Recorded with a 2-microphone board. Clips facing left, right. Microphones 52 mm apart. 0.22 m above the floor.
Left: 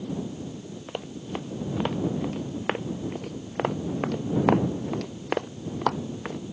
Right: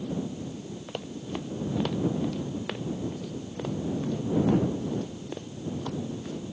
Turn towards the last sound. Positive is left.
turn(degrees=70)  # may be behind; listen again after turning